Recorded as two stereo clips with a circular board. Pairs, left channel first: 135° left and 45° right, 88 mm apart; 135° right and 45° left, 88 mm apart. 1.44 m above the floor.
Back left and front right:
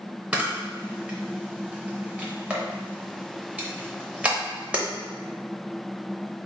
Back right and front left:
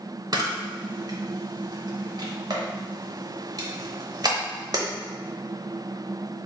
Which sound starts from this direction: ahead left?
A camera shutter, at 0.3 s.